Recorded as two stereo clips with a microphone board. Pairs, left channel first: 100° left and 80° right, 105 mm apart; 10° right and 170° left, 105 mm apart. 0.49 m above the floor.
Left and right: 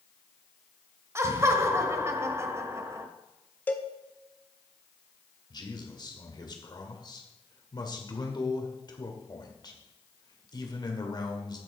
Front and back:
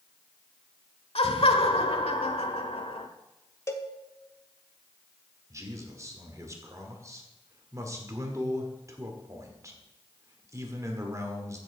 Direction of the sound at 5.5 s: 125° left.